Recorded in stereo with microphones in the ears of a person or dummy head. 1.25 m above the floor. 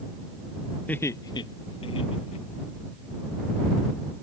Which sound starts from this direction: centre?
Laughter, at 0.9 s.